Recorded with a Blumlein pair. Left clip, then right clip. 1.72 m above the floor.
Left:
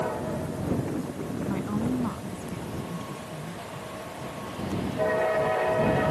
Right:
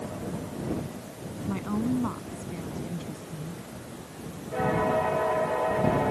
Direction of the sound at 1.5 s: 5° right.